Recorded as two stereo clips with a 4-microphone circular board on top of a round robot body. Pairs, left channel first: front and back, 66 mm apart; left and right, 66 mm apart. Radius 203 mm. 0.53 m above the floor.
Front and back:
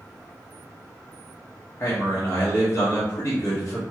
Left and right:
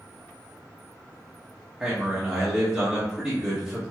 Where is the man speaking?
15° right, 1.3 m.